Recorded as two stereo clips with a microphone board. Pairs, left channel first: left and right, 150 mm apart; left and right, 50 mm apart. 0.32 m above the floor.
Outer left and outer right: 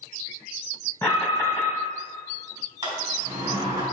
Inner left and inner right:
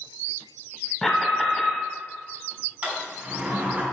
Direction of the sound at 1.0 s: 20° left (ahead or behind).